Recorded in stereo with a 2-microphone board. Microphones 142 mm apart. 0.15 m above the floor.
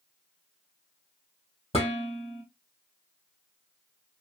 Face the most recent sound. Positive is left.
turn(degrees=45)  # may be behind; listen again after turning